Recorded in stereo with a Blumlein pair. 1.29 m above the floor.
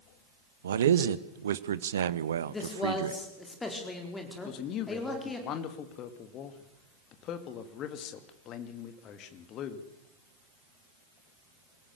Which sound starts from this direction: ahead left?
A man speaking, at 4.4 s.